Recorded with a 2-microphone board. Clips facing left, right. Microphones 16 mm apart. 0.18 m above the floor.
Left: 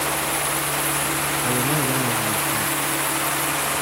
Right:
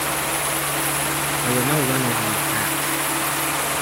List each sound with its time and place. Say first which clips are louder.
1.4 s a man speaking: right 3 dB; 35° right (ahead or behind)